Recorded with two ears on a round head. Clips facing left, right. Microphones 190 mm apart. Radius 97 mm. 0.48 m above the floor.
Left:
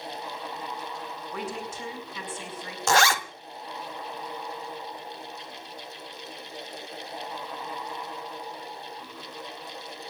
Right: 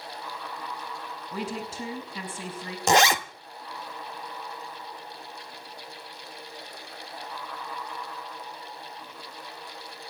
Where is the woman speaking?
30° right (ahead or behind), 6.5 m.